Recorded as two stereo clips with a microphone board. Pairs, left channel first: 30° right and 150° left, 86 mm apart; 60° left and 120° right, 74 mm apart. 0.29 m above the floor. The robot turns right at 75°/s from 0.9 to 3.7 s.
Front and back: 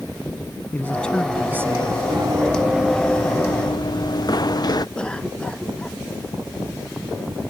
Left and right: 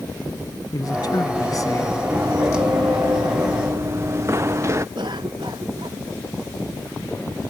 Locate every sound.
0.7 s a man speaking: 35° left; by 2.0 s 120° left
2.1 s running footsteps: straight behind; by 4.8 s 70° right
5.0 s a cough: 110° right